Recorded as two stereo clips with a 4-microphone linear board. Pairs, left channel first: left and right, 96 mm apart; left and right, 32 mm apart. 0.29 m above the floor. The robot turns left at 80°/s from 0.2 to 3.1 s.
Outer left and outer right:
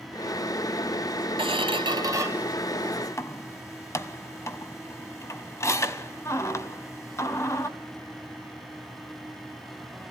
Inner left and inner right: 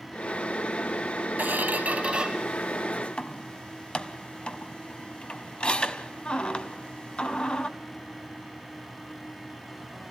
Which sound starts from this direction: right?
A squeak, at 1.4 s.